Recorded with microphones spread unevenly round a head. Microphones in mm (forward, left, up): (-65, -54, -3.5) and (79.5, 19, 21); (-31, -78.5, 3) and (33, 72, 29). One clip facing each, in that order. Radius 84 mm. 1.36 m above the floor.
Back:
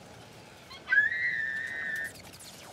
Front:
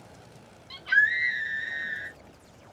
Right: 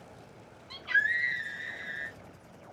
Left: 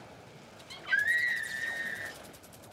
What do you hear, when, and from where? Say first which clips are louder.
0.7 s a scream: front 3 dB, right 1 dB; 25° right, 2.0 m